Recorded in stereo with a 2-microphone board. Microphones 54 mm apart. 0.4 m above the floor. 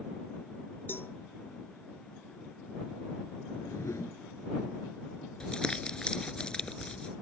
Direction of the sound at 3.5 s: 60° left (ahead or behind).